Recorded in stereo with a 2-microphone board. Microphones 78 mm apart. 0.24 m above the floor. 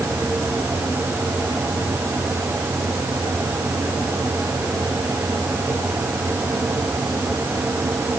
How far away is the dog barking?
I don't hear a dog barking.